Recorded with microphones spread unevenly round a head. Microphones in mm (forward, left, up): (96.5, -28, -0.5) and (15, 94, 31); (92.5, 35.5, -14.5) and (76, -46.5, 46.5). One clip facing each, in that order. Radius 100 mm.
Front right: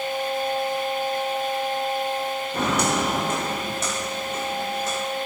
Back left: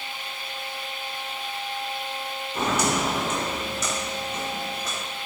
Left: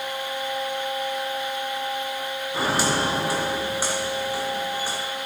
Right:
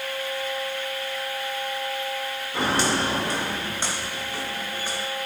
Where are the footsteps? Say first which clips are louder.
Even, even; 30° right, 3.5 m; by 5.0 s 10° right, 6 m.